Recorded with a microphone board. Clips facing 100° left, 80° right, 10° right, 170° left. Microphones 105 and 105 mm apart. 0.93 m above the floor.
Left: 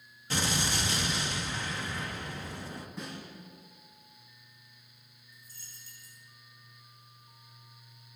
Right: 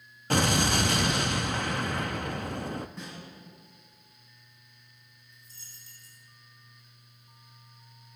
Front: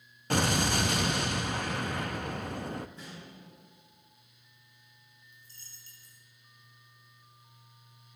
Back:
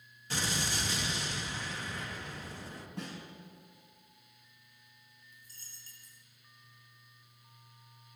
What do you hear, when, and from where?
0.3 s an explosion: 45° right, 0.6 m
3.0 s a snare drum: 170° right, 7 m
5.3 s a dropped coin: 140° right, 3.5 m